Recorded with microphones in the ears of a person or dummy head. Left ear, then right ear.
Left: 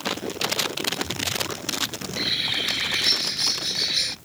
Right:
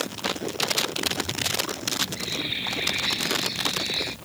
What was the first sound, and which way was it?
A bird, 50° left (ahead or behind).